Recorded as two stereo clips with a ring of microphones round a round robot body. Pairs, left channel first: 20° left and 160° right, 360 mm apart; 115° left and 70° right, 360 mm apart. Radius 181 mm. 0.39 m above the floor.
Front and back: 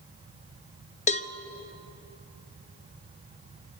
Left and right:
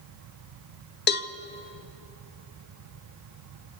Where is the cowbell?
80° left, 0.6 m.